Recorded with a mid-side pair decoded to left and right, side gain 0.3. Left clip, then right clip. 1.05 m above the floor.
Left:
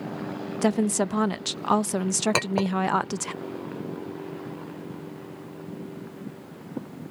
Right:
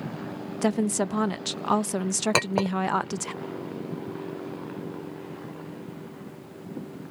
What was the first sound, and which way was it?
A woman speaking, 15° left.